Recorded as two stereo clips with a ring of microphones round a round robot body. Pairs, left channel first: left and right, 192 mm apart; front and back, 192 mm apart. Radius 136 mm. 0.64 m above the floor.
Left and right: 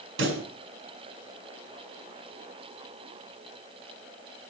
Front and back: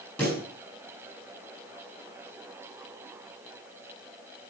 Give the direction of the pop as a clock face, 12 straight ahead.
3 o'clock.